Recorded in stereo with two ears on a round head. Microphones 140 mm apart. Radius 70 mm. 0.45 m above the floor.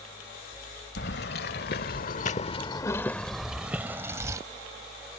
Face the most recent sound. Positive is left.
turn(degrees=-20)  # may be behind; listen again after turning